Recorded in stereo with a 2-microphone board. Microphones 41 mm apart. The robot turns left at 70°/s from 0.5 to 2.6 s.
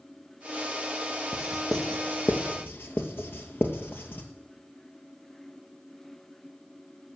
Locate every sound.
1.3 s writing: 20° right (ahead or behind), 1.5 m; by 4.3 s 60° left (ahead or behind), 1.5 m